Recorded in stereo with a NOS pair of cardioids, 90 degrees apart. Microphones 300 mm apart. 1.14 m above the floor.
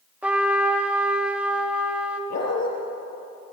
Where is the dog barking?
60° left, 5.5 m.